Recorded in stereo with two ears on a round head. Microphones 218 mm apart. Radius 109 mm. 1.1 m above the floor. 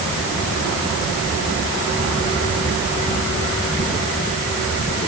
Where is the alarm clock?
No alarm clock in this recording.